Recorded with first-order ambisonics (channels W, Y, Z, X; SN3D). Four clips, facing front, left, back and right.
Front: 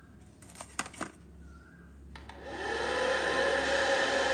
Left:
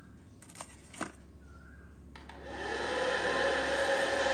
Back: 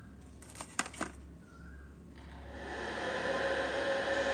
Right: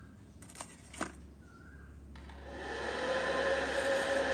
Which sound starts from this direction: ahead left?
A hair dryer, at 2.1 s.